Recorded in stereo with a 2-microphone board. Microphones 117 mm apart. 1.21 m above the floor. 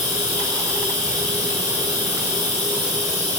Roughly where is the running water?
Right.